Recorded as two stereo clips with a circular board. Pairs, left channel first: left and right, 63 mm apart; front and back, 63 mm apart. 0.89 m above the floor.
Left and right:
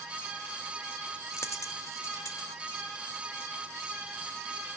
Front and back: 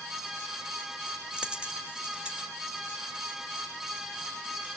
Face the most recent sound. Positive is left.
turn(degrees=110)